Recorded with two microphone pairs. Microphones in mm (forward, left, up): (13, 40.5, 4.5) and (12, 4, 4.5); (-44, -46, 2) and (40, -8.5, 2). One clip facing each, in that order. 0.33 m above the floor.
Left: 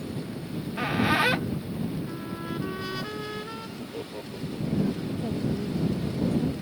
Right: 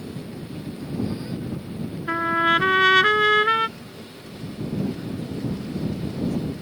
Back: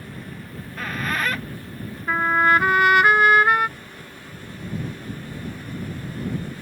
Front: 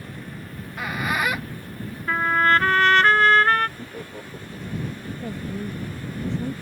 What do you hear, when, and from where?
0.5 s a squeak: 105° left
2.1 s a trumpet: 80° right
3.8 s laughter: 50° left
5.2 s a woman speaking: 35° left